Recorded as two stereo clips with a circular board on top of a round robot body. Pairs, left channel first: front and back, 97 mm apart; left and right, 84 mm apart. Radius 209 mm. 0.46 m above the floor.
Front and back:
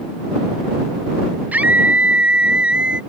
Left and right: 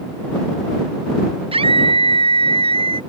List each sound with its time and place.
1.5 s a scream: 105° right; by 3.0 s 100° right